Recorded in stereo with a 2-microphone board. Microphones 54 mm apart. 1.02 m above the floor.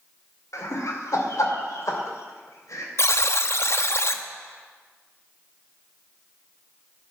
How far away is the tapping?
I don't hear tapping.